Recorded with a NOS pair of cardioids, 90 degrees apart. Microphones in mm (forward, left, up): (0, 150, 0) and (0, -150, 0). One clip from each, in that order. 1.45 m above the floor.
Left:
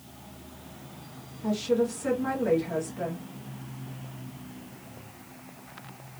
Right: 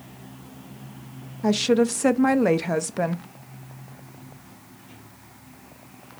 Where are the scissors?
I don't hear scissors.